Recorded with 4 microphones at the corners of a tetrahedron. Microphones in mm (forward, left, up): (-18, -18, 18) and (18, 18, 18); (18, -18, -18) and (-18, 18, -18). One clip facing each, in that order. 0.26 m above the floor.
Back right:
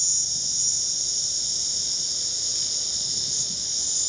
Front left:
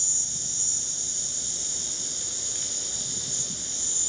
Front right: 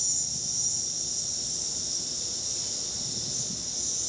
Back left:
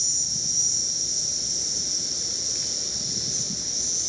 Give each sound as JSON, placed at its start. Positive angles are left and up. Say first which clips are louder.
{"t": 0.0, "sound": "an insect", "louder": "back right 2 dB, back left 4 dB", "azimuth_deg": 115, "distance_m": 0.8}